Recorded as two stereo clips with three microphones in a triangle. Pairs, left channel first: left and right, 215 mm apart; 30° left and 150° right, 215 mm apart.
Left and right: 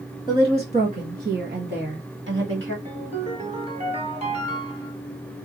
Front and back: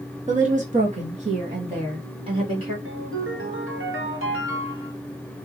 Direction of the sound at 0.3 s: 145° right.